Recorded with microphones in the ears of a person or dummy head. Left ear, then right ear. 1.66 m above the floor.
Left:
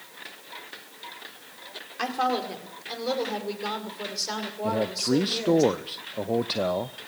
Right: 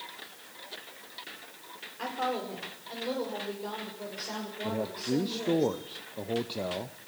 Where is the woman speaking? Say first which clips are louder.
Left 6 dB; 55° left (ahead or behind), 5 m; by 5.6 s 65° left (ahead or behind), 6.5 m.